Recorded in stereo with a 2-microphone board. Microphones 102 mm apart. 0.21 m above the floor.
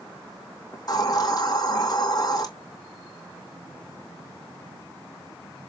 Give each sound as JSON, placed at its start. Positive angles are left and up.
{"t": 0.7, "sound": "a hiss", "side_deg": 40, "distance_m": 2.5}